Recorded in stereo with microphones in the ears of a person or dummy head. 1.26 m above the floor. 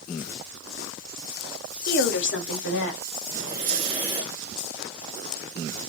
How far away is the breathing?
About 1.2 m.